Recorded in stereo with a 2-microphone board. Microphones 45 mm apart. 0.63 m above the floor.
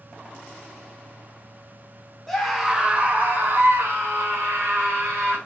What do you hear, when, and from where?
2.3 s a scream: 5° left (ahead or behind), 0.7 m; by 5.4 s 75° right (ahead or behind), 2 m